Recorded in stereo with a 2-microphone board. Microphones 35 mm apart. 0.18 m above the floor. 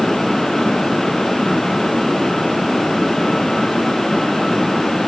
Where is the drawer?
No drawer in this recording.